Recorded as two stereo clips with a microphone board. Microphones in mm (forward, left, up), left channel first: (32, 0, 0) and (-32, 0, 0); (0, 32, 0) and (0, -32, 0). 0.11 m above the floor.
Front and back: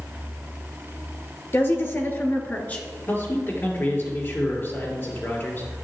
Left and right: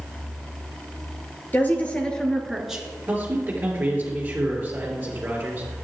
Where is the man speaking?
40° right, 2.5 m.